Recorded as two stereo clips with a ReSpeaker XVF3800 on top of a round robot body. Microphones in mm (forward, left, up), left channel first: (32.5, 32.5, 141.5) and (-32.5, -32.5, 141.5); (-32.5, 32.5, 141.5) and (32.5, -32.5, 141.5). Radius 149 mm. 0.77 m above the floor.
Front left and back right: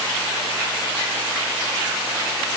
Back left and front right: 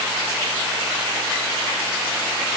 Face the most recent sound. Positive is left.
No sound to turn to.